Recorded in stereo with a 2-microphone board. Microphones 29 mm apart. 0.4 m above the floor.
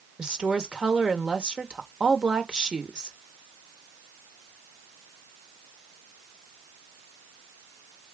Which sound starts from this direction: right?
A woman speaking, at 0.2 s.